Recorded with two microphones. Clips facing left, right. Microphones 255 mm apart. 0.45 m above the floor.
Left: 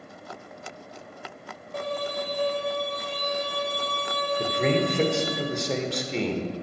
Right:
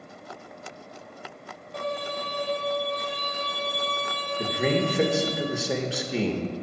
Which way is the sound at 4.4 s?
5° right (ahead or behind).